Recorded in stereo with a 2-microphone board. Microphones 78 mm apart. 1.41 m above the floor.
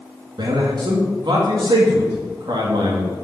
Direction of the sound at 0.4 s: 70° right (ahead or behind).